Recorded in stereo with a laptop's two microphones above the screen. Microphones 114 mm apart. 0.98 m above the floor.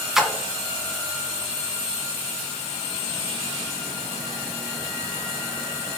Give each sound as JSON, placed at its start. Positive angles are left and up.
{"t": 0.1, "sound": "a splash", "side_deg": -5, "distance_m": 2.0}